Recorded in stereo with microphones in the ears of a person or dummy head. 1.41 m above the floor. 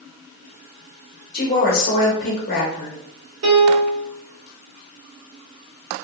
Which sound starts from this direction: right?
A piano, at 3.4 s.